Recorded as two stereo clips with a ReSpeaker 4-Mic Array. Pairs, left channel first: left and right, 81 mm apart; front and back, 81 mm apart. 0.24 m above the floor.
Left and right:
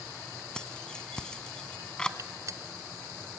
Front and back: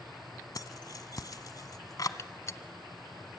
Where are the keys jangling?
10° left, 1.2 m.